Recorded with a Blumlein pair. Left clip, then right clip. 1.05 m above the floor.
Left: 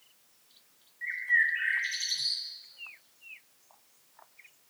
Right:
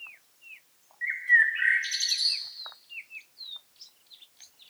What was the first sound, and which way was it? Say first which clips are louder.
A bird: right 5 dB; 15° right.